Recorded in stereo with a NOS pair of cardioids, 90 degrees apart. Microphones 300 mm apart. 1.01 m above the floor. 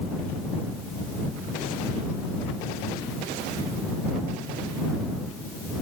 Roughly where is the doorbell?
No doorbell in this recording.